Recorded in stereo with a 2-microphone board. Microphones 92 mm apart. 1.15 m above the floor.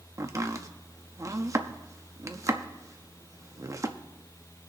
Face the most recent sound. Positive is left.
turn(degrees=-35)  # may be behind; listen again after turning